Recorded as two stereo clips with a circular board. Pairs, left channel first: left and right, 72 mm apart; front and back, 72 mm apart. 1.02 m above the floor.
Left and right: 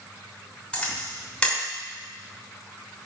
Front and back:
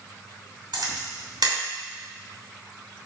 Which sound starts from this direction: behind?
A camera shutter, at 0.7 s.